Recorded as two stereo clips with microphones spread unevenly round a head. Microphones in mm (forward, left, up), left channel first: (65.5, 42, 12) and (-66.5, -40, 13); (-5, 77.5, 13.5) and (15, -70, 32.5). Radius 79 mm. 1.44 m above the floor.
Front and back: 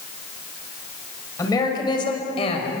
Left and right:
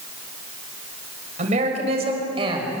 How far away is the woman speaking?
About 6 m.